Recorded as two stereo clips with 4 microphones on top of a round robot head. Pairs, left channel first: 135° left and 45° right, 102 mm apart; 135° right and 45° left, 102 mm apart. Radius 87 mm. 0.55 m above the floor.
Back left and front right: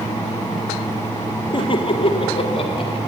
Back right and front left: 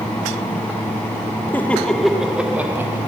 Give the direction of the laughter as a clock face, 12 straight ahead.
7 o'clock.